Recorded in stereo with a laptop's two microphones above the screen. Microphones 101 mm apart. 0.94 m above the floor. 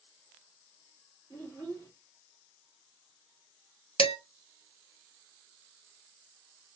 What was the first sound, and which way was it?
A child speaking, 25° left (ahead or behind).